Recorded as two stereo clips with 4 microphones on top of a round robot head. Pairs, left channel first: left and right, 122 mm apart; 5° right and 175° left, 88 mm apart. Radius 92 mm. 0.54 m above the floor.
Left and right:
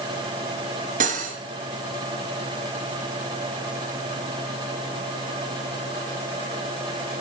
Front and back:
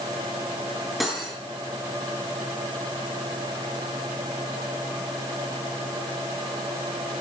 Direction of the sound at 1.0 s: 95° right.